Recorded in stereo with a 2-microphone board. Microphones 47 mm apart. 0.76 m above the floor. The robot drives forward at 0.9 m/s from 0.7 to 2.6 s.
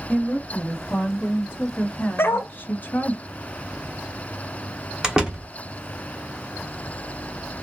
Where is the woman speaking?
20° left (ahead or behind), 2.5 m; by 3.2 s 40° left (ahead or behind), 1.3 m.